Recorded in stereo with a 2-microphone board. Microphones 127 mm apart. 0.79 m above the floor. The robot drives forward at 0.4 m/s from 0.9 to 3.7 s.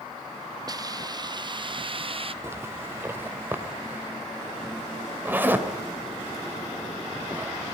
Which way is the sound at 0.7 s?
30° right (ahead or behind).